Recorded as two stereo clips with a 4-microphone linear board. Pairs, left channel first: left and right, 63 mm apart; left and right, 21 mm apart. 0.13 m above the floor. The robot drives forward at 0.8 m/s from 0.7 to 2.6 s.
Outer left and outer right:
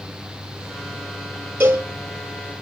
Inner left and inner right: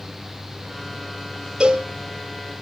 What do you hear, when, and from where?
1.6 s a cowbell: 35° right (ahead or behind), 2 m; by 1.9 s 30° right (ahead or behind), 2.5 m